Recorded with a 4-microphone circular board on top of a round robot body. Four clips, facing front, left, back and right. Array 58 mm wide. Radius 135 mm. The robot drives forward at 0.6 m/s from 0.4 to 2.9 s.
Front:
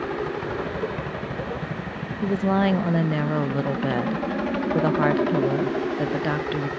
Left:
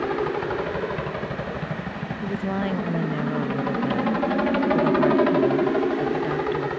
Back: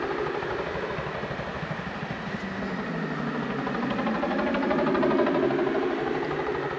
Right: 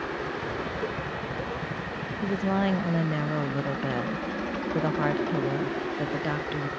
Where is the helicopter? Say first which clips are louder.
Left 7 dB, front 1 dB; 95° left; by 6.8 s 100° left.